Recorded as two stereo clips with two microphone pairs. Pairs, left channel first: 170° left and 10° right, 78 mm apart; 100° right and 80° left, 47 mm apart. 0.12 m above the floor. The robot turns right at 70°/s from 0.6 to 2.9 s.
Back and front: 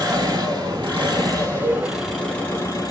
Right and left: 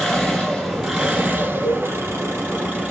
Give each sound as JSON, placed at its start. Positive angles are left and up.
{"t": 0.0, "sound": "an engine running", "azimuth_deg": -20, "distance_m": 3.0}
{"t": 1.6, "sound": "a cowbell", "azimuth_deg": 10, "distance_m": 1.8}